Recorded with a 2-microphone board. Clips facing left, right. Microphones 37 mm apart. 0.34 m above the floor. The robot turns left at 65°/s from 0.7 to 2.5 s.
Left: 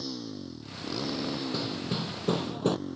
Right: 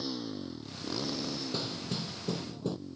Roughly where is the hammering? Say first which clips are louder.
Left 4 dB; behind.